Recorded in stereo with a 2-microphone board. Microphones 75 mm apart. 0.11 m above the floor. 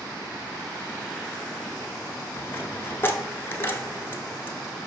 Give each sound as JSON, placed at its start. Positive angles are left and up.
{"t": 2.4, "sound": "a dropped coin", "side_deg": 30, "distance_m": 0.8}